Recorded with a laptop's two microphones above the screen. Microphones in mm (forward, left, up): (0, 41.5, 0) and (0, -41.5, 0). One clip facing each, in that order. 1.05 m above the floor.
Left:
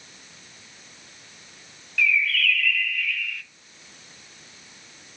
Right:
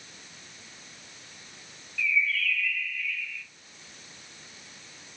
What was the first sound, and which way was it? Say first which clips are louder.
A bird: left 4 dB; 75° left (ahead or behind).